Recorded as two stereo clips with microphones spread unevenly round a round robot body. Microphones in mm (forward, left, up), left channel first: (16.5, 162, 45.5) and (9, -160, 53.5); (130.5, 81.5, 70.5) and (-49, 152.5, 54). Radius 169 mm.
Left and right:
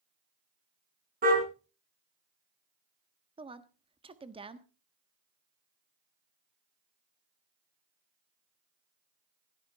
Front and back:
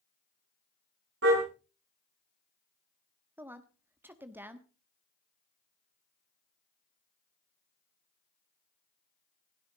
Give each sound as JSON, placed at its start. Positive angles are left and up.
{"t": 1.2, "sound": "a car horn", "azimuth_deg": -155, "distance_m": 4.0}
{"t": 3.4, "sound": "a woman speaking", "azimuth_deg": -145, "distance_m": 1.2}